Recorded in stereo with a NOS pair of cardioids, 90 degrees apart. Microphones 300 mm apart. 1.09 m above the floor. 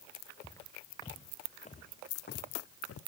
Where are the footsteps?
10° left, 5 m; by 3.0 s 55° left, 3 m.